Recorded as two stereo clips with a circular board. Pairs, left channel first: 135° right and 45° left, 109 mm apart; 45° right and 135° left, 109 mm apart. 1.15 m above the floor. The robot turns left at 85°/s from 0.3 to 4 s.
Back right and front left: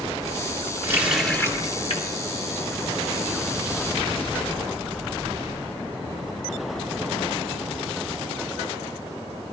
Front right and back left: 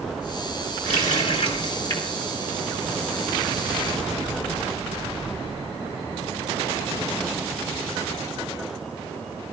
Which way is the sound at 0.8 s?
15° right.